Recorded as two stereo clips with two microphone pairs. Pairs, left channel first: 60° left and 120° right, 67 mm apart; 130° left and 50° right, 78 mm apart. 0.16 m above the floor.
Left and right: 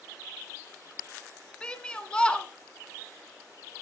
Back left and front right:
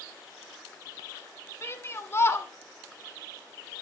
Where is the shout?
120° left, 1.1 m.